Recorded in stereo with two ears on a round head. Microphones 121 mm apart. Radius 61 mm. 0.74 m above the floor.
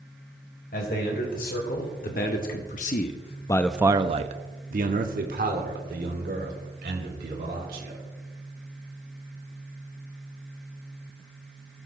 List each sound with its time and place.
0.7 s a man speaking: 80° left, 3 m; by 8.0 s 80° right, 4 m